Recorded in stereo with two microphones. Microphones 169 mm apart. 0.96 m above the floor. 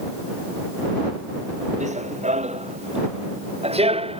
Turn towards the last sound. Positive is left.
turn(degrees=-35)  # may be behind; listen again after turning